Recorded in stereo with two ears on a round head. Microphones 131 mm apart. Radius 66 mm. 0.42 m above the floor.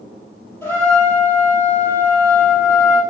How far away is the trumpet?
About 3.5 m.